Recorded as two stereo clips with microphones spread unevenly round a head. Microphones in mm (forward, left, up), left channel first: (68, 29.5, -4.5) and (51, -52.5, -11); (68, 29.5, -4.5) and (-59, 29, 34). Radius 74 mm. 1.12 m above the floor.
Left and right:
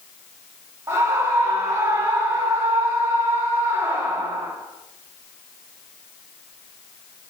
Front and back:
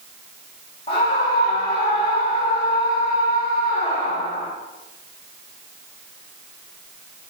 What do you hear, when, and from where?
0.9 s a scream: 50° right, 3 m